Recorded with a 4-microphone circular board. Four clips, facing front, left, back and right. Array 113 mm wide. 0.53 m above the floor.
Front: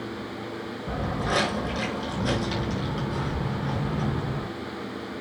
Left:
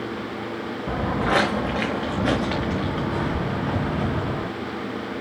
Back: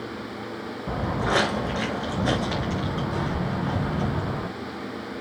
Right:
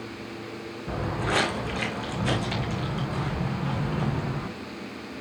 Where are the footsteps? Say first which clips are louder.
Left 5 dB, back 3 dB; 115° left, 2 m; by 4.5 s 120° left, 4.5 m.